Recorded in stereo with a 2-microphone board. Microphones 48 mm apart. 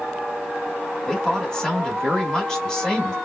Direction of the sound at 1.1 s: 15° left (ahead or behind).